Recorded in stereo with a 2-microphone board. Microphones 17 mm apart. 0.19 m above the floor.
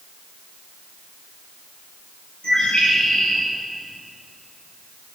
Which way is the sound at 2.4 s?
65° left (ahead or behind).